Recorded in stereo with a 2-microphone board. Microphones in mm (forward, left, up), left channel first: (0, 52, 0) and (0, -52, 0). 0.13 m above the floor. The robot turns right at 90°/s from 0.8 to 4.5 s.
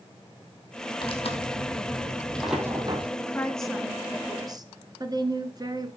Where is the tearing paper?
50° left, 1.9 m; by 3.1 s 120° right, 1.9 m.